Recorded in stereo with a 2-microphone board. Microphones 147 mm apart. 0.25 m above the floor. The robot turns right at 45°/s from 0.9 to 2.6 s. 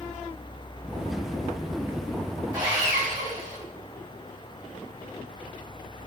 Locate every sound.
2.5 s sawing: 25° right (ahead or behind), 1.9 m; by 3.6 s 30° right (ahead or behind), 1.9 m